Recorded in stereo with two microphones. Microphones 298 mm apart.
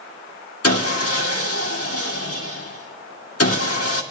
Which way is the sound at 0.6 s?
55° left (ahead or behind).